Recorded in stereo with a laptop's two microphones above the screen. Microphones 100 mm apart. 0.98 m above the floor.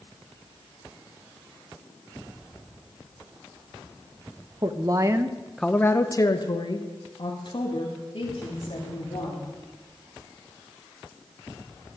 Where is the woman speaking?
45° right (ahead or behind), 1.2 m; by 9.5 s 60° left (ahead or behind), 4 m.